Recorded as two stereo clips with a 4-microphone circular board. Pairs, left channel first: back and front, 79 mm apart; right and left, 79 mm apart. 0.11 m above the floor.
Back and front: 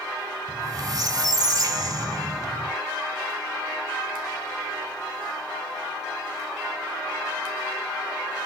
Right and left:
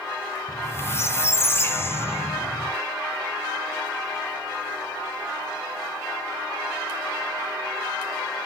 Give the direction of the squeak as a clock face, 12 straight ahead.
1 o'clock.